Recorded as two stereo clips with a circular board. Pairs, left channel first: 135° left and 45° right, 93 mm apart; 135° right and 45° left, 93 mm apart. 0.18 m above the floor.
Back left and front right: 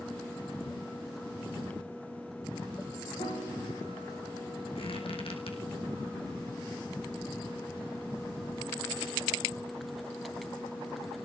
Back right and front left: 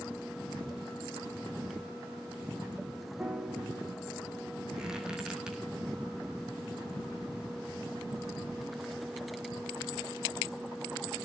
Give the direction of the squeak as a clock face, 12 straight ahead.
8 o'clock.